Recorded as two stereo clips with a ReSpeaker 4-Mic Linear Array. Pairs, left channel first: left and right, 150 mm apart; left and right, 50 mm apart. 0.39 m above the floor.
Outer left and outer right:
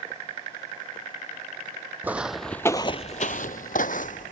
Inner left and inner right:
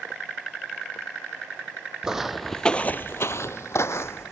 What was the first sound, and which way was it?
Footsteps, 10° right (ahead or behind).